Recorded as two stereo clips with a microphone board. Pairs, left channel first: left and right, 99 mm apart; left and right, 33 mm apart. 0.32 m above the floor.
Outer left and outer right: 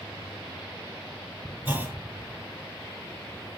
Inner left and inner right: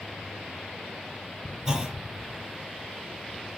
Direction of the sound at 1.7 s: 20° right (ahead or behind).